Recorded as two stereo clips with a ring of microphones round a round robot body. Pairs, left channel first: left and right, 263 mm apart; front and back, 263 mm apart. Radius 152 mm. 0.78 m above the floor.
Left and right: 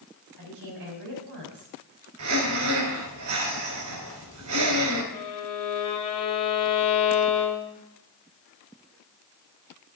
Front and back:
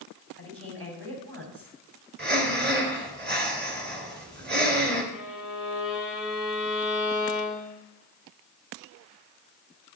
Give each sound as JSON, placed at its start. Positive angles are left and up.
{"t": 0.4, "sound": "a woman speaking", "azimuth_deg": -145, "distance_m": 5.5}
{"t": 2.2, "sound": "breathing", "azimuth_deg": -130, "distance_m": 3.0}
{"t": 5.1, "sound": "a violin", "azimuth_deg": 90, "distance_m": 1.9}